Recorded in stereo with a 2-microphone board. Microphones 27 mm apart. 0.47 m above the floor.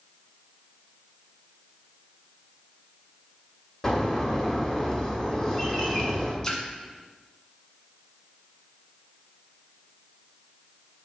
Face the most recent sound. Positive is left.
turn(degrees=20)  # may be behind; listen again after turning